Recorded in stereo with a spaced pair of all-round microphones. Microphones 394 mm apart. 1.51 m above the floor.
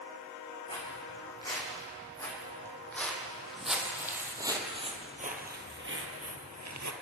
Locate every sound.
0.7 s footsteps: 15° left (ahead or behind), 5.5 m; by 6.9 s 45° right (ahead or behind), 2 m